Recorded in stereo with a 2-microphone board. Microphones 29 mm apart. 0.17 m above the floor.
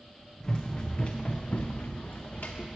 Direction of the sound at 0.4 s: 20° left (ahead or behind).